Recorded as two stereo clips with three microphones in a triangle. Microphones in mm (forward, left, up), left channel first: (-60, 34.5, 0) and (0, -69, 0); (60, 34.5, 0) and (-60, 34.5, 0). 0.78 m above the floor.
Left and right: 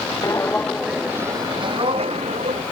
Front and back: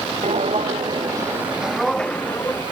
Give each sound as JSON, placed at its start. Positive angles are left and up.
{"t": 0.2, "sound": "footsteps", "azimuth_deg": 180}